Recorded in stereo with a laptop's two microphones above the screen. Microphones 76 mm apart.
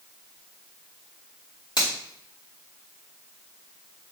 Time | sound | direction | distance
1.8 | a finger snap | 75° left (ahead or behind) | 2.5 m